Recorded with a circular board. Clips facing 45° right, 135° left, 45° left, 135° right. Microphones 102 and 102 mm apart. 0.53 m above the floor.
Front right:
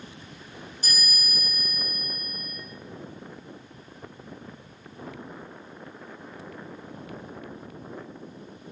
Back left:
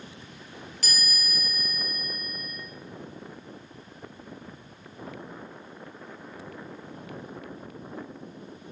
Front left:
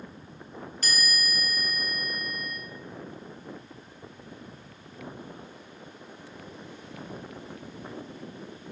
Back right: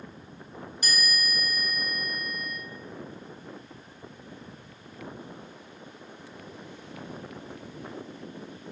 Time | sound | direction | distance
0.8 | a chime | 150° left | 2.5 m